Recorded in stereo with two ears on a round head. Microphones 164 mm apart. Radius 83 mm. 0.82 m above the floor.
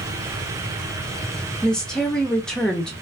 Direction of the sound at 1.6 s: 5° left (ahead or behind).